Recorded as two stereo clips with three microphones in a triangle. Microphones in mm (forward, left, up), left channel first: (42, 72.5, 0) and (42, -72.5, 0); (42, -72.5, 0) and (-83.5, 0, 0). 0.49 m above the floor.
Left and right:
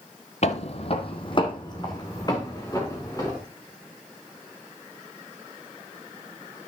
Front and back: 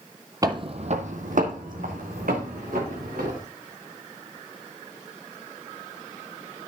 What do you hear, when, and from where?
0.4 s footsteps: 95° left, 0.7 m; by 3.4 s 155° left, 3 m